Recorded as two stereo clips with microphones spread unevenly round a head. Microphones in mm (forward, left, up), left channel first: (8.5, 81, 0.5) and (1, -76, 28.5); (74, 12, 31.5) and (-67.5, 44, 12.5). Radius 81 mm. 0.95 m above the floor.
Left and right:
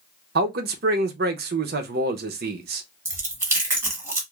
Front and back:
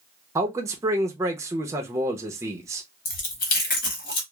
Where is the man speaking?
125° right, 0.6 m.